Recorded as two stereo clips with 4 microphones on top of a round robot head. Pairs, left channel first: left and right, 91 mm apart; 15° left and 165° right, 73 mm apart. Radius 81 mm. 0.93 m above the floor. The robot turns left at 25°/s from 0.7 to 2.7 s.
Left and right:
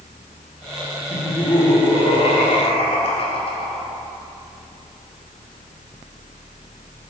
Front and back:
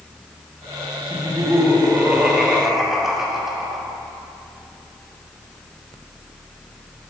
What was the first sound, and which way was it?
Laughter, 150° left.